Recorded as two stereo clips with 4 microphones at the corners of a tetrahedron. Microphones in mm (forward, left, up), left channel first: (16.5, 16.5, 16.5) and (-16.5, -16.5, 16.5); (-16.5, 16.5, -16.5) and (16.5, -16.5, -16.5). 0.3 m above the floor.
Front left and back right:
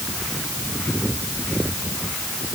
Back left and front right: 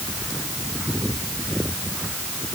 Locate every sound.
Only background noise.